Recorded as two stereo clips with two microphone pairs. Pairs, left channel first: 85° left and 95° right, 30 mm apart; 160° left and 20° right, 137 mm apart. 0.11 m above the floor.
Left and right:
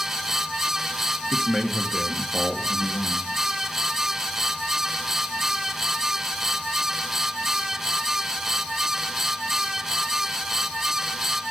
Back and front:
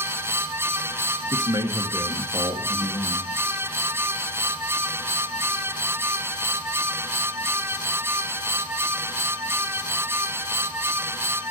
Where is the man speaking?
15° left, 1.8 m.